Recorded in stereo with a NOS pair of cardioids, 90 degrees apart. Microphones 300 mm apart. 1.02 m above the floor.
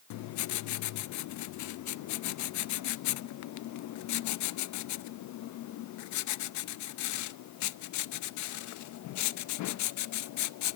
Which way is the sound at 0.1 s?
70° left.